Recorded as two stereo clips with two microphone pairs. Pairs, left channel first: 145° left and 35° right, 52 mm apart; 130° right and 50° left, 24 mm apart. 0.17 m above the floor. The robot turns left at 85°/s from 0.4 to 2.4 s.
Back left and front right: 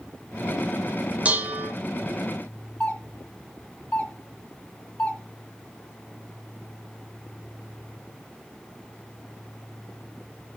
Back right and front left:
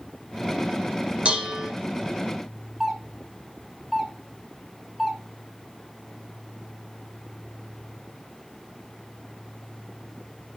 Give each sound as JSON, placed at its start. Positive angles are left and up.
{"t": 1.2, "sound": "dishes clattering", "azimuth_deg": 25, "distance_m": 1.7}
{"t": 2.8, "sound": "a doorbell", "azimuth_deg": 105, "distance_m": 1.7}